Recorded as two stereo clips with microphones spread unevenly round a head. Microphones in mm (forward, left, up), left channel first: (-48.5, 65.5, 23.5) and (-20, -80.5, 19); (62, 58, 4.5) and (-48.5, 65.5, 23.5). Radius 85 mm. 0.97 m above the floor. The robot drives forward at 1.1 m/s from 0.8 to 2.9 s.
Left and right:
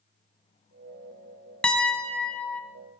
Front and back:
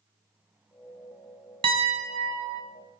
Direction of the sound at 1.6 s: 175° right.